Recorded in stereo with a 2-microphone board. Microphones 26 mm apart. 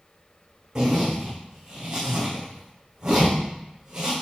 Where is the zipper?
25° right (ahead or behind), 3.5 m.